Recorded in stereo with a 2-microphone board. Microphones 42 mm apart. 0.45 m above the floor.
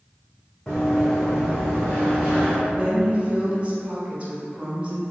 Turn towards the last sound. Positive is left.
turn(degrees=-30)  # may be behind; listen again after turning